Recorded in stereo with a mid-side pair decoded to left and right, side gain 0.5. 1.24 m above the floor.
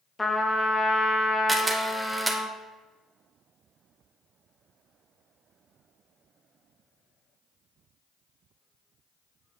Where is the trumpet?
15° left, 0.7 m.